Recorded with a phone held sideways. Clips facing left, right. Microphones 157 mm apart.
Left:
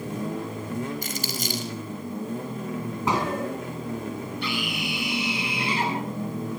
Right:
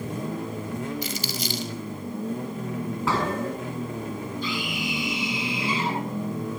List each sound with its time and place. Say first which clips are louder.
1.0 s crumpling: even; 50° left (ahead or behind), 5 m
3.1 s a gunshot: left 1 dB; 20° left (ahead or behind), 6 m
4.4 s a scream: even; 80° left, 9 m